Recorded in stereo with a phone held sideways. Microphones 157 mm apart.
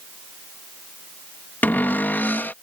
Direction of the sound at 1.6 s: 10° left (ahead or behind).